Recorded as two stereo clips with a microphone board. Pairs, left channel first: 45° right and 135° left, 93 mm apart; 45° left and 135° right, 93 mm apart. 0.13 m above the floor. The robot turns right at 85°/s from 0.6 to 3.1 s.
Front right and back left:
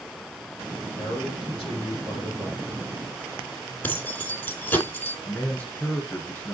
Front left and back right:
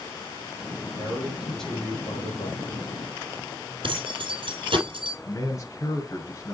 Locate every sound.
1.0 s a man speaking: 95° right, 4 m; by 2.9 s 65° left, 4 m
3.8 s keys jangling: 115° right, 2.5 m
5.2 s a man speaking: 20° left, 1.7 m